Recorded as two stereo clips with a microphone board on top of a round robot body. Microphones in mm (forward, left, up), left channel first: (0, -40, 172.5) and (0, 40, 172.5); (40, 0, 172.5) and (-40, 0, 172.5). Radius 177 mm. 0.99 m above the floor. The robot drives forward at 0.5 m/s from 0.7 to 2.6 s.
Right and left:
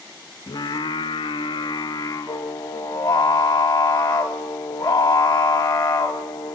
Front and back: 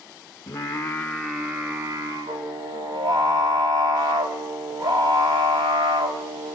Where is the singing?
50° right, 0.6 m; by 6.5 s 150° right, 0.8 m.